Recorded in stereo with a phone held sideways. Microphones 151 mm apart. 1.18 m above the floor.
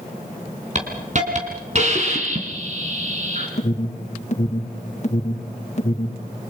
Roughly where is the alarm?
Left.